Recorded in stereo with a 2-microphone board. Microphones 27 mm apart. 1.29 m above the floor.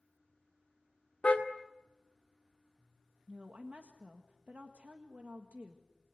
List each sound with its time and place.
1.2 s a car horn: 55° left (ahead or behind), 2 m
3.3 s a woman speaking: 80° right, 1.8 m